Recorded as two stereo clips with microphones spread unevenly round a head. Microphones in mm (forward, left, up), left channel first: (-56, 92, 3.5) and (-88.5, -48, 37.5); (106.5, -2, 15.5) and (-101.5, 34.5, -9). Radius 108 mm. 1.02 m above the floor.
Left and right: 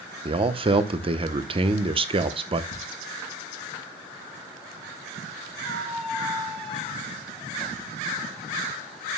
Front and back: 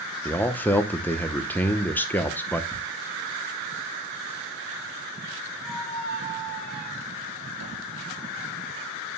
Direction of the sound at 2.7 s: 85° left.